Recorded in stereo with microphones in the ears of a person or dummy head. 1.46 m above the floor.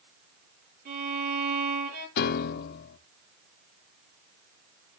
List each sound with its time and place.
0.8 s a violin: 55° right (ahead or behind), 8.5 m
2.2 s a piano: 55° left (ahead or behind), 0.7 m